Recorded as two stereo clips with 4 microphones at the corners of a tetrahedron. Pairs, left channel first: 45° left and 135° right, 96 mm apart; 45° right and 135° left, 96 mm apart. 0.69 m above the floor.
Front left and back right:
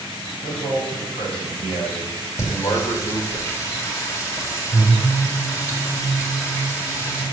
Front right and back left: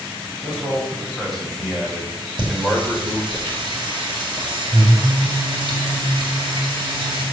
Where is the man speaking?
45° left, 4 m; by 3.4 s 30° left, 1.7 m.